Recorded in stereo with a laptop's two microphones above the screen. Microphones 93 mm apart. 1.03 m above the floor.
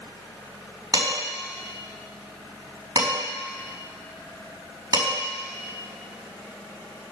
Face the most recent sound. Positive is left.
turn(degrees=-45)  # may be behind; listen again after turning